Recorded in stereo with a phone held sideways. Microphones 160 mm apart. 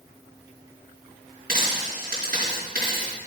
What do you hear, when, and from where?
1.5 s a dropped coin: 60° right (ahead or behind), 4 m